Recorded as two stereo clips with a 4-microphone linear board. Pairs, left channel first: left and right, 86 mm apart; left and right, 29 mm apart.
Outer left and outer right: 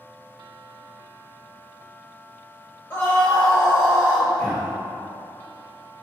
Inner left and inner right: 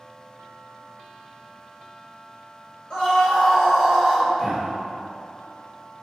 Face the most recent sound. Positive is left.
turn(degrees=0)  # may be behind; listen again after turning